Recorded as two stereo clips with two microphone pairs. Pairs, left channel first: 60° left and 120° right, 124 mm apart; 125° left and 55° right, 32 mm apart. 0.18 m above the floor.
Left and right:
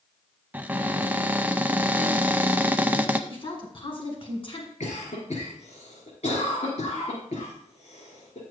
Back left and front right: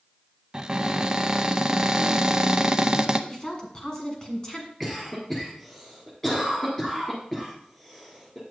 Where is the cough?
45° left, 3 m.